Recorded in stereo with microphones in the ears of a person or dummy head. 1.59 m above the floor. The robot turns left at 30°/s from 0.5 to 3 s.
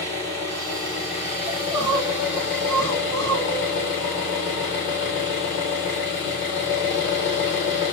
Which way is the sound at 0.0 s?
160° left.